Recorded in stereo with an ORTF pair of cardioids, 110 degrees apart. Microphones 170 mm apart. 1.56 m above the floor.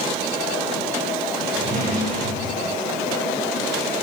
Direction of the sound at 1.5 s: 55° right.